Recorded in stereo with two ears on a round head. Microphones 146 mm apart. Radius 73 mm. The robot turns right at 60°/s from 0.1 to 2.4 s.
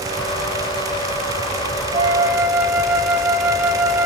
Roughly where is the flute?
Right.